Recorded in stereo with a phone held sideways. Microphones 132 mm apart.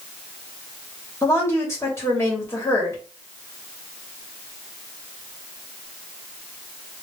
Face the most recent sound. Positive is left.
turn(degrees=20)  # may be behind; listen again after turning